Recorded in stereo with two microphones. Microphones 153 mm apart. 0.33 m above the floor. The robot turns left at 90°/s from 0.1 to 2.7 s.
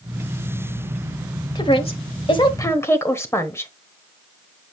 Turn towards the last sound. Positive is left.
turn(degrees=30)